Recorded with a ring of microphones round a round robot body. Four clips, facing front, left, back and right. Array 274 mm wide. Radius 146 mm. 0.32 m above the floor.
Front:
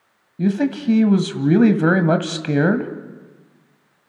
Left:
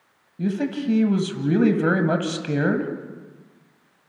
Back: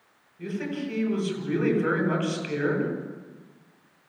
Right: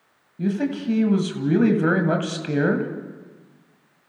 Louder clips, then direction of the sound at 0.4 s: Right 1 dB, front 11 dB; straight ahead.